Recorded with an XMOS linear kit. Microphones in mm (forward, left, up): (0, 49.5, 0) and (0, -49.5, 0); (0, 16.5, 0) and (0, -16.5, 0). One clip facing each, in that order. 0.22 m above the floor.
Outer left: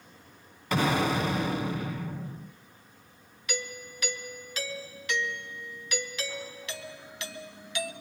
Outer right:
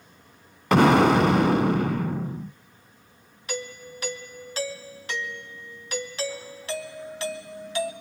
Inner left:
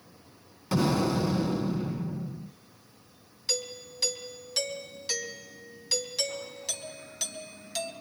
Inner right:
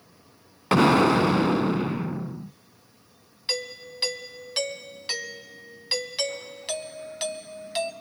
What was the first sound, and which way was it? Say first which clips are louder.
An explosion: outer right 9 dB, inner right 8 dB; 65° right (ahead or behind).